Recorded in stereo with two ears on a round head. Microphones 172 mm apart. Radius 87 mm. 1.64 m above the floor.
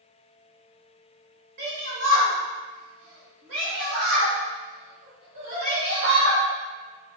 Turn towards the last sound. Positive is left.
turn(degrees=-55)  # may be behind; listen again after turning